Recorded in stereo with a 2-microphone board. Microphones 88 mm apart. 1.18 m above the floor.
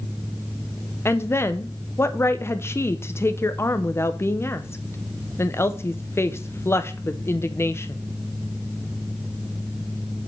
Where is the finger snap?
I don't hear a finger snap.